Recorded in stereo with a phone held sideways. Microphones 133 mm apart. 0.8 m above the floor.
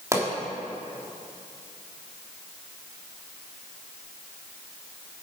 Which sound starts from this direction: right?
A pop, at 0.1 s.